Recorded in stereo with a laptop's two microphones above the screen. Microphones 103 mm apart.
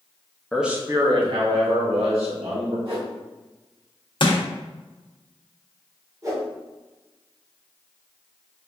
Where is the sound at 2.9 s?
65° right (ahead or behind), 1.9 m.